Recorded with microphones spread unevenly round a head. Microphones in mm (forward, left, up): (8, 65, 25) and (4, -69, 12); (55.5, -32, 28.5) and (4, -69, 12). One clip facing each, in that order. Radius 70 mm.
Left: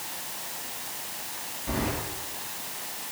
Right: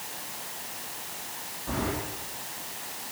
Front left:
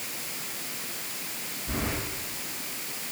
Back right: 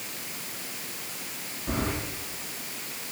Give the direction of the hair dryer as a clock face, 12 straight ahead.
No hair dryer in this recording.